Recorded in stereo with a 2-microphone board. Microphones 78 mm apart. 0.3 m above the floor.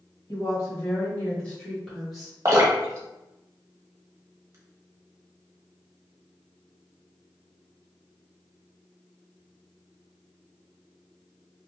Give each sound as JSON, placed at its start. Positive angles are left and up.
{"t": 0.3, "sound": "a woman speaking", "side_deg": 40, "distance_m": 1.9}
{"t": 2.5, "sound": "dripping", "side_deg": -40, "distance_m": 0.9}